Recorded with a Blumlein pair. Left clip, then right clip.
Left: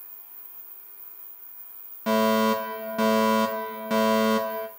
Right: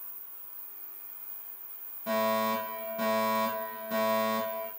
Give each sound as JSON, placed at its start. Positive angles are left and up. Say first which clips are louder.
{"t": 2.1, "sound": "a fire alarm", "louder": "left 6 dB", "azimuth_deg": 55, "distance_m": 3.0}